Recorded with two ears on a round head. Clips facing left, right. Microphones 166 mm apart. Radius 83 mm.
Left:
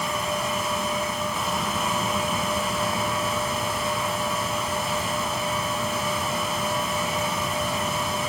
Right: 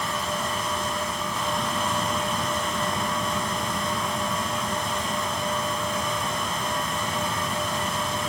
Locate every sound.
Only background noise.